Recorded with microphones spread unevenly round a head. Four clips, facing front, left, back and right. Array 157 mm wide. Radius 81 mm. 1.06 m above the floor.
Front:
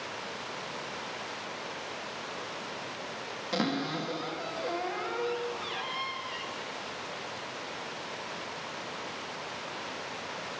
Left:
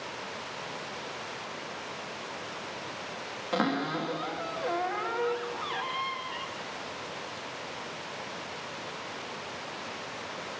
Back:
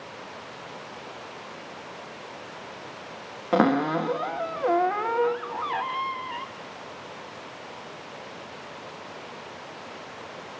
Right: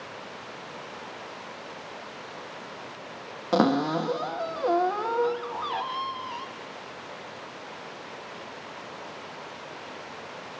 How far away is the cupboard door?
About 0.9 m.